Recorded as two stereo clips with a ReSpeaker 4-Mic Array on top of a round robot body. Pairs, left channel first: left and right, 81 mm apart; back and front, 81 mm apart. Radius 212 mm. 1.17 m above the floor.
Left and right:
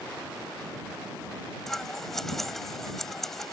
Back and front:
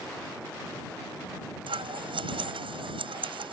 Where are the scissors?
5° left.